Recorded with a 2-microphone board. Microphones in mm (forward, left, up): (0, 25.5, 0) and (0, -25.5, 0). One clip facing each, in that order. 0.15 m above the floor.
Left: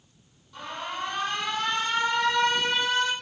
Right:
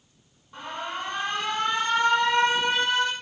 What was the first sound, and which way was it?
An alarm, 30° right (ahead or behind).